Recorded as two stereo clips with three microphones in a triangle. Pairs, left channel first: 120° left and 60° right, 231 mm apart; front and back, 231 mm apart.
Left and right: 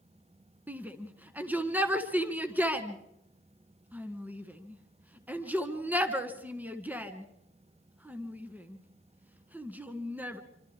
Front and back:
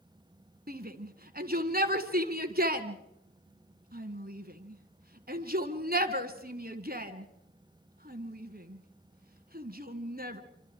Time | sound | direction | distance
0.7 | a shout | 140° right | 1.8 m